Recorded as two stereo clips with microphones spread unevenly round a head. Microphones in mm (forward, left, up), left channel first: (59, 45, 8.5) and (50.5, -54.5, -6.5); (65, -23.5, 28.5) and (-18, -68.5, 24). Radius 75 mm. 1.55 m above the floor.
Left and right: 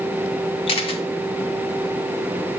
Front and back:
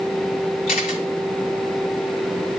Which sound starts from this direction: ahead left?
A camera shutter, at 0.7 s.